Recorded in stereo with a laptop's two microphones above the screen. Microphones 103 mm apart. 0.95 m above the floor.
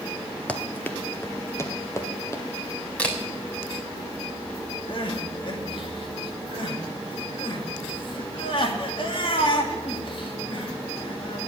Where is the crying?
50° left (ahead or behind), 2 m.